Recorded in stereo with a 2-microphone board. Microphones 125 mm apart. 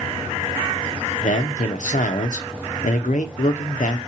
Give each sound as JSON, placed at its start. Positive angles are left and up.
{"t": 1.2, "sound": "a man speaking", "side_deg": 75, "distance_m": 0.5}